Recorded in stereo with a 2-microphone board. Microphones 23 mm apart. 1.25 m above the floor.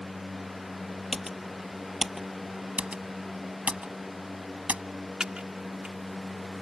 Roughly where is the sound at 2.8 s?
Right.